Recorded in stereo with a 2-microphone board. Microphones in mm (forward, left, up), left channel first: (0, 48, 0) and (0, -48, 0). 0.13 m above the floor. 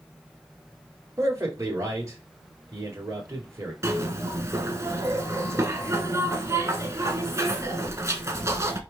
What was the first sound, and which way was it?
A man speaking, 35° right (ahead or behind).